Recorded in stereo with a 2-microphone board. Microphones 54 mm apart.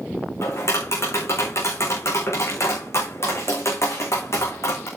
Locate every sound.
0.4 s tapping: 60° left (ahead or behind), 5.5 m